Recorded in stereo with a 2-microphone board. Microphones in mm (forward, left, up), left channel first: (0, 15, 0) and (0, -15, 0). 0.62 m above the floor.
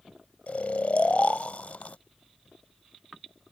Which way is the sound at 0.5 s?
50° left (ahead or behind).